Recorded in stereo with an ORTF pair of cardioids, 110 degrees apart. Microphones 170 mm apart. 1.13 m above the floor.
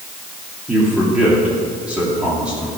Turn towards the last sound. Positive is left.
turn(degrees=-5)